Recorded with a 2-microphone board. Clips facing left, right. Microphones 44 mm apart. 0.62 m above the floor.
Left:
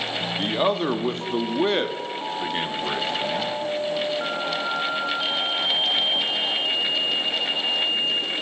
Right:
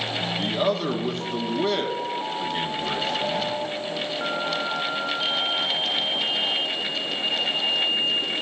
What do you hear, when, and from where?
0.4 s a man speaking: 30° left (ahead or behind), 0.7 m